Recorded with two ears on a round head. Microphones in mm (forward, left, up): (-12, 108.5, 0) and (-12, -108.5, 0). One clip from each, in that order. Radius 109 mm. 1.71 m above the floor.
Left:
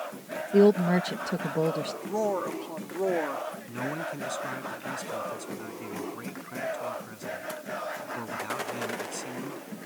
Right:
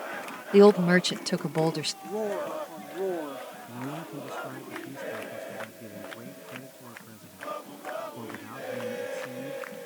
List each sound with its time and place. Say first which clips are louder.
0.5 s a woman speaking: right 3 dB; 60° right (ahead or behind)
2.0 s a woman speaking: left 5 dB; 40° left (ahead or behind)
3.7 s a man speaking: left 4 dB; 65° left (ahead or behind)